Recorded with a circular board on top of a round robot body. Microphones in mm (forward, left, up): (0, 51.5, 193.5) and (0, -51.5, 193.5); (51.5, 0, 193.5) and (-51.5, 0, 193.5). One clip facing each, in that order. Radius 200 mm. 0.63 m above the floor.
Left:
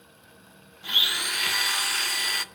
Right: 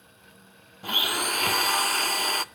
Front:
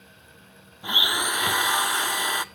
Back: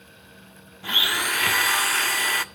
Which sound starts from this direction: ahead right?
A blender, at 0.8 s.